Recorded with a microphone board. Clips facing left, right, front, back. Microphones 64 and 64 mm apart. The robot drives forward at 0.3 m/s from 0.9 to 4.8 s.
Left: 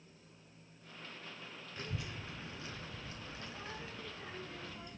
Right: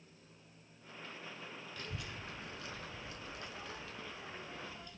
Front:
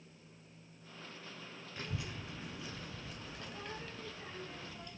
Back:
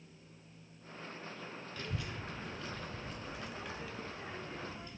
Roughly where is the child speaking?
Ahead left.